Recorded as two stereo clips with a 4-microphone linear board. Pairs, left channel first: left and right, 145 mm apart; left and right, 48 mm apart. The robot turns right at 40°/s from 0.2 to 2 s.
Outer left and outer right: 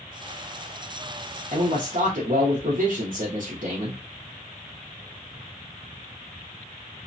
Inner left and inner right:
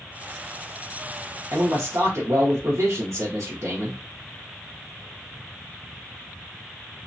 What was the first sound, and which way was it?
A man speaking, 70° right (ahead or behind).